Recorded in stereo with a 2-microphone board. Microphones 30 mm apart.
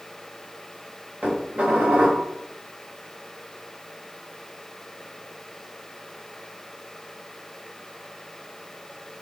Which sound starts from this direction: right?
Dishes clattering, at 1.2 s.